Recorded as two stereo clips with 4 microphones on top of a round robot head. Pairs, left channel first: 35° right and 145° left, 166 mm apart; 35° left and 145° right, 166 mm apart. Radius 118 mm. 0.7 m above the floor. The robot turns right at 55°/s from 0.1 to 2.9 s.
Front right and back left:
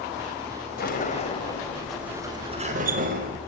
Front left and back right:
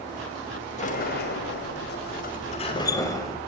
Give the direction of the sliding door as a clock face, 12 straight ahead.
12 o'clock.